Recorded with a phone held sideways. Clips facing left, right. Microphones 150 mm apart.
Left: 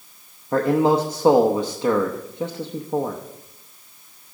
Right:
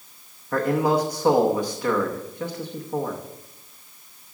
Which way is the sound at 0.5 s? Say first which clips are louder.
Left 3 dB; 25° left (ahead or behind).